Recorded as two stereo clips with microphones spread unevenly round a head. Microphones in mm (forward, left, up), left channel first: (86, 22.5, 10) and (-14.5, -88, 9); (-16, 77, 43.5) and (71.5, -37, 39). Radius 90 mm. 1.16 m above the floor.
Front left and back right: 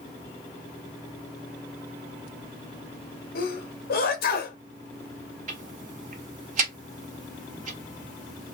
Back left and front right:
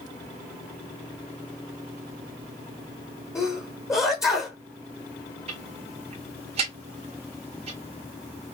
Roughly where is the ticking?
Right.